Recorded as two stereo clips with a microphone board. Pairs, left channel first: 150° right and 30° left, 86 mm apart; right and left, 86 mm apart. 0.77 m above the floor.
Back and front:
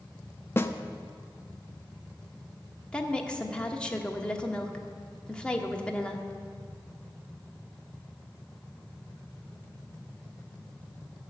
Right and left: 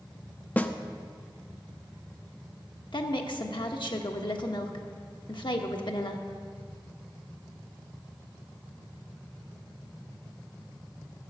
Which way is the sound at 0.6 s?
135° right.